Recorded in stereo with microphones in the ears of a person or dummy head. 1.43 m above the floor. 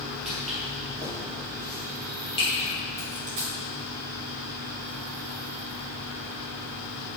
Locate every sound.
0.2 s footsteps: centre (ahead or behind), 1.9 m; by 2.7 s 35° left (ahead or behind), 2.5 m
3.0 s a dropped coin: 30° right (ahead or behind), 1.4 m